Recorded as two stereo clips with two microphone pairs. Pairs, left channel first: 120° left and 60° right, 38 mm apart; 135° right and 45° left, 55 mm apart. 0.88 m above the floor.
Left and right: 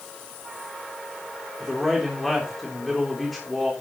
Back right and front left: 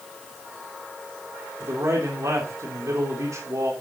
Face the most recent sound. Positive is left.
turn(degrees=35)